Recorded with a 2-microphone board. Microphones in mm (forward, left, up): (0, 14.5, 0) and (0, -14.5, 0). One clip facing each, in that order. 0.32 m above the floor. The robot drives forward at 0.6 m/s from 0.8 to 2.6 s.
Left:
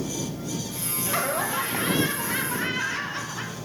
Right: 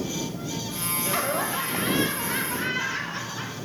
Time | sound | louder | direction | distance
1.1 | laughter | left 1 dB | 5° right (ahead or behind) | 0.8 m